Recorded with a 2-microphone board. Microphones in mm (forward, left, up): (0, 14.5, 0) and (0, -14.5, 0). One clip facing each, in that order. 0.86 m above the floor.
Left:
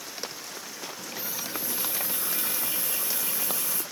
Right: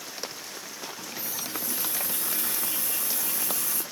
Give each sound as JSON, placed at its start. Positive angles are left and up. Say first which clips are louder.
{"t": 1.0, "sound": "a running tap", "louder": "left 1 dB", "side_deg": 30, "distance_m": 2.0}